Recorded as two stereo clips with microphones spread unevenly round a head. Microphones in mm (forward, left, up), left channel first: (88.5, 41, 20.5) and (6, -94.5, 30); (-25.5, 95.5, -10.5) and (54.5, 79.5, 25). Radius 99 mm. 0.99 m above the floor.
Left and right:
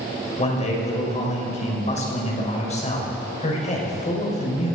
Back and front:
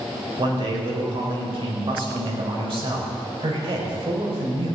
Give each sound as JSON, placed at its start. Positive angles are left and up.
{"t": 0.4, "sound": "a man speaking", "azimuth_deg": 10, "distance_m": 4.0}